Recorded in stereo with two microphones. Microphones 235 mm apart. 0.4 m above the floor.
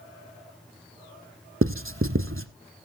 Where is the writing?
60° right (ahead or behind), 0.7 m.